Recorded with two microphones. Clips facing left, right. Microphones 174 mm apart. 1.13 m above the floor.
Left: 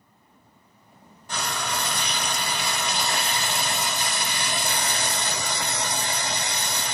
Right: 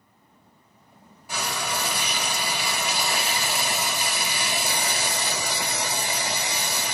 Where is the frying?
10° right (ahead or behind), 0.8 m.